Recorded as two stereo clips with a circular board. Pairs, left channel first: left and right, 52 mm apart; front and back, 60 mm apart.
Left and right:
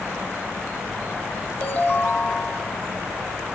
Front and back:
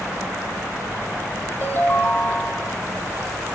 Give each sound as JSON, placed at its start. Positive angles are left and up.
{"t": 1.6, "sound": "a ringtone", "azimuth_deg": 45, "distance_m": 1.2}